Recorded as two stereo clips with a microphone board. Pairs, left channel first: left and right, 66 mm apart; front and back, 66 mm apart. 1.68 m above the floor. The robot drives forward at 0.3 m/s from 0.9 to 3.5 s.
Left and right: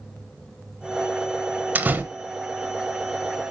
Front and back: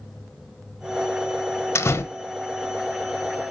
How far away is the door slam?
About 1.0 m.